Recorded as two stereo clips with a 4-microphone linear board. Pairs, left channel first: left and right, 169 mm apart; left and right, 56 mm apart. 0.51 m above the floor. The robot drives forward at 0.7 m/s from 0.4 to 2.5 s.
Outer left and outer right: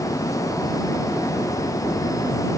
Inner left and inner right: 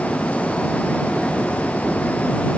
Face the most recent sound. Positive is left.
No sound to turn to.